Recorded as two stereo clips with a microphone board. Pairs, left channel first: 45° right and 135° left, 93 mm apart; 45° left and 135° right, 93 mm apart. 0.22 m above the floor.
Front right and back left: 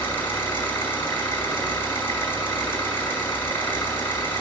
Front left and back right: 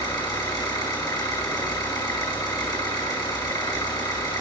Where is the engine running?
15° left, 2.5 m.